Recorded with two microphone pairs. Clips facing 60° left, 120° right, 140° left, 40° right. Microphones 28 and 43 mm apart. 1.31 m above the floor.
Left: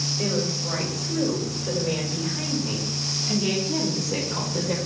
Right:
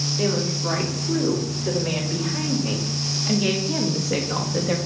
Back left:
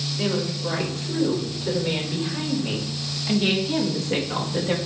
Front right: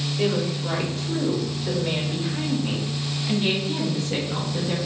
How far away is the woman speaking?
About 3.5 m.